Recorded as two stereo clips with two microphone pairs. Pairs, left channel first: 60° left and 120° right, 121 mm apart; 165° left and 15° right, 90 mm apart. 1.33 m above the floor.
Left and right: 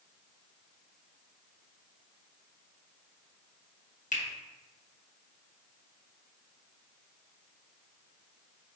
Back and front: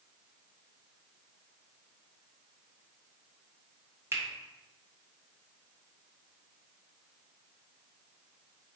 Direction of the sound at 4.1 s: 50° left.